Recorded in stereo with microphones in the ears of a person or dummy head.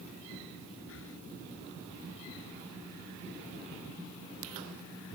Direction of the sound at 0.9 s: 80° left.